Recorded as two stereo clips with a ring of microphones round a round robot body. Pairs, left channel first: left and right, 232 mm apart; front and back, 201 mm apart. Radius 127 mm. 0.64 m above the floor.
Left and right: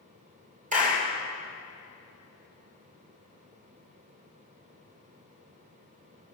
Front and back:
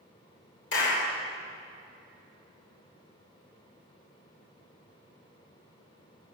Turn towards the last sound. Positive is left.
turn(degrees=-35)